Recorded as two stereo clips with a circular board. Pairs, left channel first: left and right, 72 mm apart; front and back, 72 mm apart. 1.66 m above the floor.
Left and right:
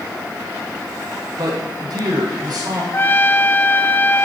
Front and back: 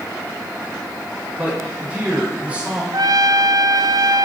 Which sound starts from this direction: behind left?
A trumpet, at 2.9 s.